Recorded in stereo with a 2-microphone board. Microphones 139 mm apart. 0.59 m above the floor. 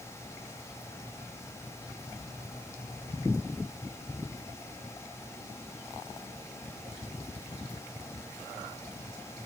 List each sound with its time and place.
Only background noise.